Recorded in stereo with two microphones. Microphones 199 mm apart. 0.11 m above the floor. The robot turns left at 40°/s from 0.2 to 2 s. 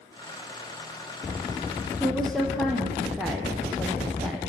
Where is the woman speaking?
Centre (ahead or behind), 3.5 m.